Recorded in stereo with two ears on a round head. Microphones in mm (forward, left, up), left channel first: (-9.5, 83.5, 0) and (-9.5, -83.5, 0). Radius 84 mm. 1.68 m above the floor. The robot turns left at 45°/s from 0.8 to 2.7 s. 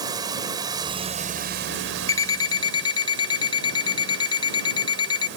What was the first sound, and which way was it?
Running water, 20° right.